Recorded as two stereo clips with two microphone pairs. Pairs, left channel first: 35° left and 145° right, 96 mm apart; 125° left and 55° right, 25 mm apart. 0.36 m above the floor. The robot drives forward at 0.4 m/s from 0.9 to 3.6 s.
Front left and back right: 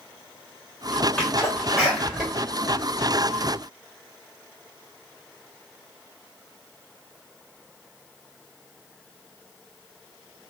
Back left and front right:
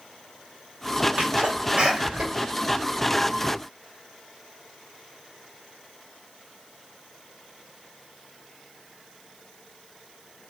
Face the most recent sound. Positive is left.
turn(degrees=-105)